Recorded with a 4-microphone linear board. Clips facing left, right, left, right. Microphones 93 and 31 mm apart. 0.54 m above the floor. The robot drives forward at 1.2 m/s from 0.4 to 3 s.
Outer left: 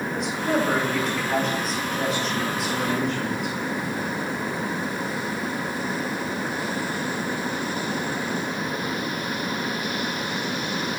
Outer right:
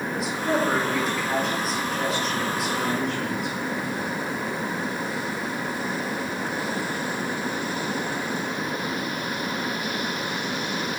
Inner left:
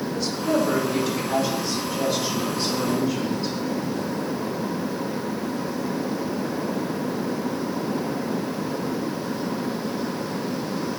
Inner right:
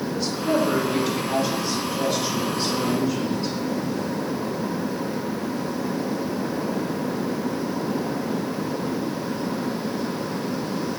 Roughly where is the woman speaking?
Centre.